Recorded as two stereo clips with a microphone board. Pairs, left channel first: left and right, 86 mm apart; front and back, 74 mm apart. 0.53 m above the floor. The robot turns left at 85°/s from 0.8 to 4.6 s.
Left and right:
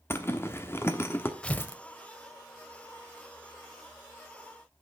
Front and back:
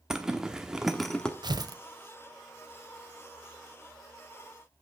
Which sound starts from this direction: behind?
Tearing paper, at 1.4 s.